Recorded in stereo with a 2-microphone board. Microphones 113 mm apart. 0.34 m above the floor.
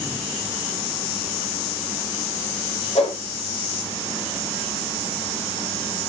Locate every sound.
3.0 s a whoosh: 65° left (ahead or behind), 5.5 m